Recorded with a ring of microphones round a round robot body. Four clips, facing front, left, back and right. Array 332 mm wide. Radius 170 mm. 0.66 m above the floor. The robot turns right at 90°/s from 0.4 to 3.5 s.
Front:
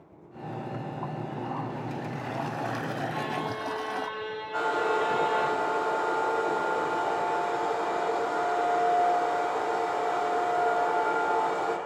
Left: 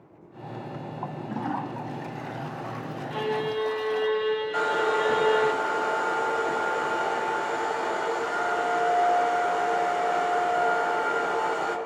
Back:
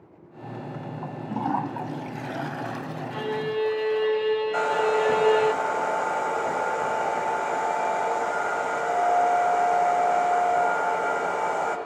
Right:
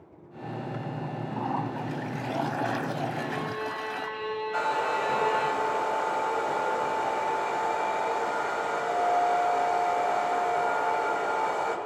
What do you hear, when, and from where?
1.0 s a toilet flushing: 120° left, 0.8 m; by 4.1 s 20° right, 0.8 m
3.1 s a violin: 110° left, 1.3 m; by 5.5 s 145° left, 1.3 m
4.5 s a hair dryer: 170° left, 2.5 m